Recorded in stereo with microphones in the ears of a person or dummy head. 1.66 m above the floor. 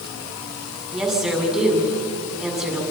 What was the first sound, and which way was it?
A woman speaking, centre (ahead or behind).